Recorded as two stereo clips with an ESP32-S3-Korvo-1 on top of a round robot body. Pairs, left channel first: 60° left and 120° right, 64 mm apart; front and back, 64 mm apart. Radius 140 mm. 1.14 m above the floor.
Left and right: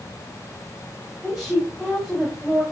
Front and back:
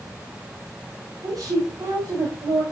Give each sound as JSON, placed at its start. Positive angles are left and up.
{"t": 1.2, "sound": "a woman speaking", "azimuth_deg": 150, "distance_m": 6.5}